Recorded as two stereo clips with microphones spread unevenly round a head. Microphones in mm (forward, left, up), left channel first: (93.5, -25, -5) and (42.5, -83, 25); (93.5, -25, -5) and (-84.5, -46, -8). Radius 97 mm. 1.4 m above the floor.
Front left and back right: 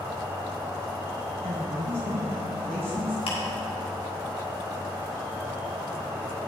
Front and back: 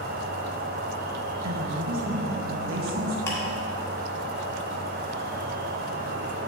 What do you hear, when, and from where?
0.0 s an insect: 150° left, 0.7 m
1.4 s a woman speaking: 170° right, 1.4 m
3.3 s ticking: 85° left, 1.6 m